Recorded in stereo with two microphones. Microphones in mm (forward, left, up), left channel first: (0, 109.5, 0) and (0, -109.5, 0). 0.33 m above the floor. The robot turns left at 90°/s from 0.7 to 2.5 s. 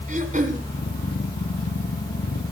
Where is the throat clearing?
35° right (ahead or behind), 2.5 m.